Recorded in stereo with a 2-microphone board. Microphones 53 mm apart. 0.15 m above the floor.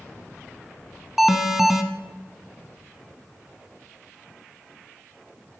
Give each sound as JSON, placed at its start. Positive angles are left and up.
{"t": 1.2, "sound": "an alarm", "side_deg": -5, "distance_m": 0.9}